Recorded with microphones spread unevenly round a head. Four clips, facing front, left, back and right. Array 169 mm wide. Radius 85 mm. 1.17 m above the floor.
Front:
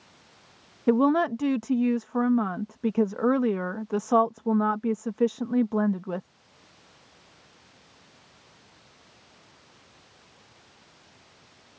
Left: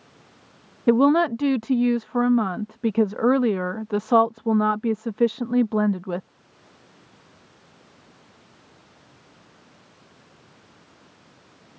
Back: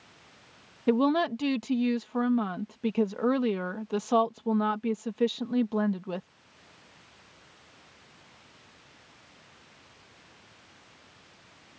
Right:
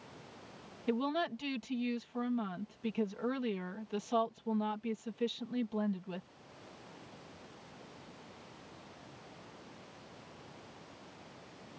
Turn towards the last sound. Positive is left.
turn(degrees=80)